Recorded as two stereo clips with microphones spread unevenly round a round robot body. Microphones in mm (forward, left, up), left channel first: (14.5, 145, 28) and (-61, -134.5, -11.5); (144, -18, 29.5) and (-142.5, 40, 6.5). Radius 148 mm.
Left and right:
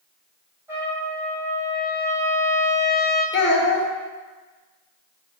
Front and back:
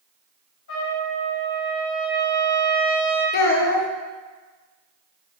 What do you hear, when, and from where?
0.7 s a trumpet: 35° right, 1.2 m
3.3 s a child speaking: 25° left, 0.6 m